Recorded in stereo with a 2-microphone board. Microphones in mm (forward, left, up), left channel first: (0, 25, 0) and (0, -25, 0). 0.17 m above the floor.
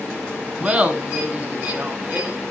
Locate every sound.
0.6 s laughter: 25° right (ahead or behind), 1.6 m; by 2.4 s 35° right (ahead or behind), 1.9 m